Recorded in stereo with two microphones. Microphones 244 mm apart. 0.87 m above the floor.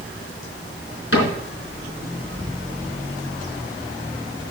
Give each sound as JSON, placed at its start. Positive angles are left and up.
{"t": 1.1, "sound": "a cupboard door", "side_deg": 60, "distance_m": 4.5}